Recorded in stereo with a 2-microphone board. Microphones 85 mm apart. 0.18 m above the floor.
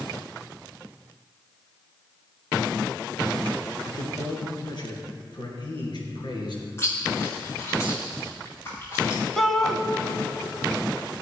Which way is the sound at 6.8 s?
30° left (ahead or behind).